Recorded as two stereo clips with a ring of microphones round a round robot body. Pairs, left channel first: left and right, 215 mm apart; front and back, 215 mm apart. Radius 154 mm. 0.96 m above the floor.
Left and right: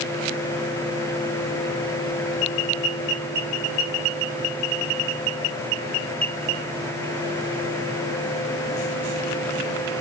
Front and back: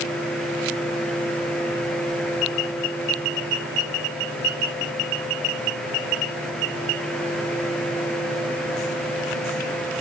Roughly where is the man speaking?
No man speaking in this recording.